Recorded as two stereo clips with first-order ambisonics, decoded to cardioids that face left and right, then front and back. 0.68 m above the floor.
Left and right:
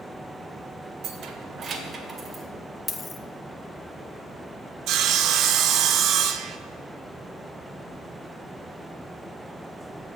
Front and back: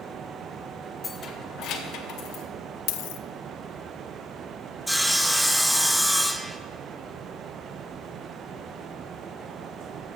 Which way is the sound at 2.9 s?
10° left.